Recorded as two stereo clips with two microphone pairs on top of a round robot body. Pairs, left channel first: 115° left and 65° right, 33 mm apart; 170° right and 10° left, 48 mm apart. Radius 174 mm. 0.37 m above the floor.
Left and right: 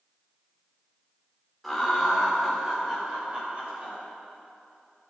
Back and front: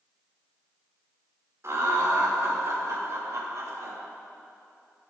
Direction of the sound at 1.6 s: 20° left.